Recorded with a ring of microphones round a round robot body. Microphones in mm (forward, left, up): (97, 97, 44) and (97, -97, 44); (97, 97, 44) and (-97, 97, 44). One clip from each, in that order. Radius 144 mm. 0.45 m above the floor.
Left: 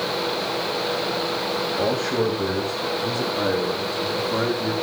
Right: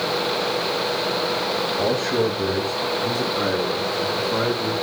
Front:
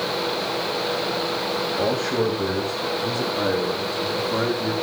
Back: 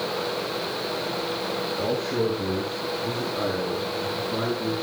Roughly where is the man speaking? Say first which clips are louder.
Right 1 dB, front 3 dB; ahead.